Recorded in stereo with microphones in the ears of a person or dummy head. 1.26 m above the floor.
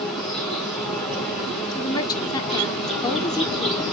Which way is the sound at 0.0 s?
10° left (ahead or behind).